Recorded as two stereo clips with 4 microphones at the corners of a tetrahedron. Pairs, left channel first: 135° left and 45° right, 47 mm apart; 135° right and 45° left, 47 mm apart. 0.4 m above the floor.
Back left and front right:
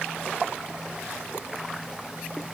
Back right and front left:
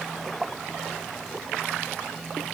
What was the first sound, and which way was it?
Only background noise.